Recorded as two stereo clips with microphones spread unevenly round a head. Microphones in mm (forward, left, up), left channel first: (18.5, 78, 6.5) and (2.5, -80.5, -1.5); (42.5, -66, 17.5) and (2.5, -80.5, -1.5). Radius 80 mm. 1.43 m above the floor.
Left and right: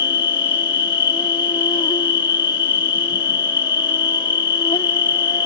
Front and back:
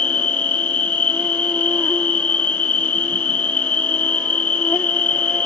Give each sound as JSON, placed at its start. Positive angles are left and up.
{"t": 0.0, "sound": "an insect", "azimuth_deg": 30}